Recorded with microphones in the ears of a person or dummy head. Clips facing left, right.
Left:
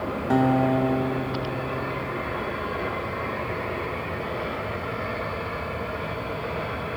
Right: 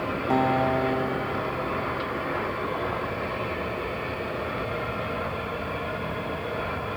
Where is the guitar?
15° left (ahead or behind), 0.7 m.